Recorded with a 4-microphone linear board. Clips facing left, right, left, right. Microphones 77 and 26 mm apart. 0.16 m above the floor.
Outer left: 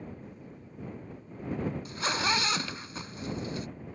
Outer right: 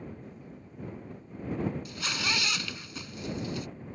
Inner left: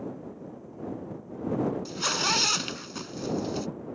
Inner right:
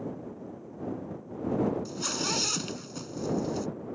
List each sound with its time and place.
1.9 s a zipper: 30° left (ahead or behind)